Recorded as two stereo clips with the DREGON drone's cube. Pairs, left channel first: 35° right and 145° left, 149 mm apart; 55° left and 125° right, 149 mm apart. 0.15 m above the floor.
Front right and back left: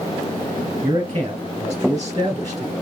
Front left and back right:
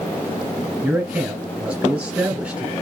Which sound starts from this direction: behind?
A man speaking, at 0.8 s.